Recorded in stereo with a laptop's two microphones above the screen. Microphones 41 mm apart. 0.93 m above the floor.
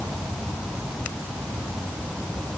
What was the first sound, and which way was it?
Only background noise.